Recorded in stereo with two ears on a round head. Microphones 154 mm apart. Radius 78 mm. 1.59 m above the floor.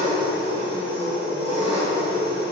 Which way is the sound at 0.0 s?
35° right (ahead or behind).